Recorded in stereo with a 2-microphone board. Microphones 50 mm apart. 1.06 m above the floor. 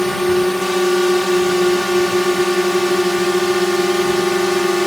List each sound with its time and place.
0.0 s a drone: 5° left (ahead or behind)